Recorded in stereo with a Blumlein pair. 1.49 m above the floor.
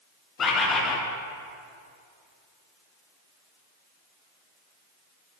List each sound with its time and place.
0.4 s a bird: 25° left, 0.9 m